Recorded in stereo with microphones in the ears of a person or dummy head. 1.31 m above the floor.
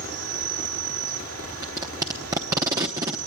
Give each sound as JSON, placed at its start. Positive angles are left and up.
{"t": 0.0, "sound": "an insect", "side_deg": -75, "distance_m": 5.0}
{"t": 1.6, "sound": "tape being pulled", "side_deg": -10, "distance_m": 0.8}